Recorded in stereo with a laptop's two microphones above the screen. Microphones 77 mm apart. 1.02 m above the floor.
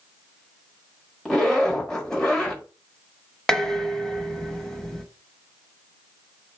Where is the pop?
I don't hear a pop.